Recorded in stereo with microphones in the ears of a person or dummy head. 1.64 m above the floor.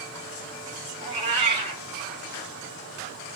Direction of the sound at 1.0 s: 25° right (ahead or behind).